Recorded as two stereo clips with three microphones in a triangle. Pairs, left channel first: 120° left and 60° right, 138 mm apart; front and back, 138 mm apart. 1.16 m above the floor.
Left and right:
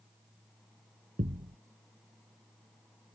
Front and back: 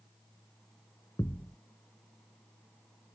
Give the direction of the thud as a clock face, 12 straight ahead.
2 o'clock.